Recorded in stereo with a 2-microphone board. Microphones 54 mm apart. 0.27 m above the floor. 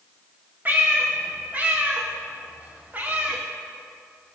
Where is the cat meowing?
30° right (ahead or behind), 6 m.